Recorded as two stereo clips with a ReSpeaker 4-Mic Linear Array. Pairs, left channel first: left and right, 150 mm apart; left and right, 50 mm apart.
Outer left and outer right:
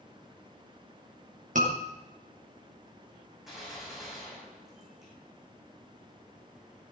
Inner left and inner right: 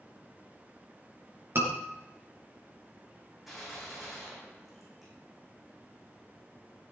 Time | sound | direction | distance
1.6 | a scream | 60° right (ahead or behind) | 4.5 m
3.5 | a gunshot | centre (ahead or behind) | 6.5 m